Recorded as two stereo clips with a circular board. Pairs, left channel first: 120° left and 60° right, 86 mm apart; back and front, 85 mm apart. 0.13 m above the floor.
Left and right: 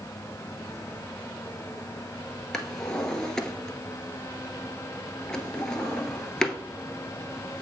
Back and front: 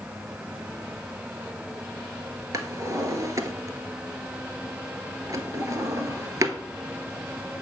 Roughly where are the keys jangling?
No keys jangling in this recording.